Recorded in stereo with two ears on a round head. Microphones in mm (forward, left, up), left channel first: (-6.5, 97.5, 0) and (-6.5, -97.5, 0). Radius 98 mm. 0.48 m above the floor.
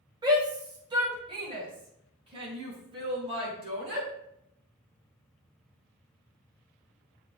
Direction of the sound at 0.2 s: 20° right (ahead or behind).